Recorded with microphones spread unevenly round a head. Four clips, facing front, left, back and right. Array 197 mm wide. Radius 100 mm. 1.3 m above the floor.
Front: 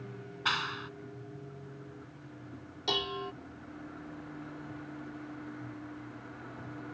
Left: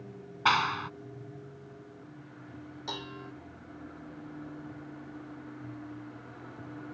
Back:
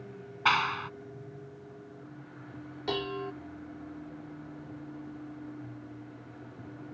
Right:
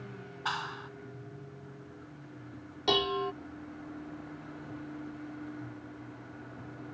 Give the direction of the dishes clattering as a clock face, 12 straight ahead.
4 o'clock.